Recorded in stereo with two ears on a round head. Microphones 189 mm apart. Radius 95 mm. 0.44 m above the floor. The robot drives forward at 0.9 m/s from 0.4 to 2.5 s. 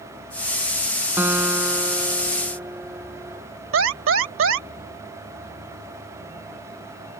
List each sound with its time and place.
1.2 s a guitar: 10° right (ahead or behind); by 3.4 s 5° right (ahead or behind)
3.7 s an alarm: 65° right (ahead or behind)